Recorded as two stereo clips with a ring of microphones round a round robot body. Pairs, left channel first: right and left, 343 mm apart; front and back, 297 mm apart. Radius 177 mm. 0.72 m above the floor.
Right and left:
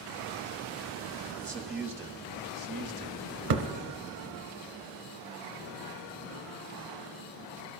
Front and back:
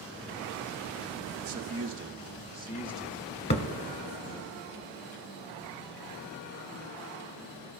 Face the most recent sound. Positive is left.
turn(degrees=55)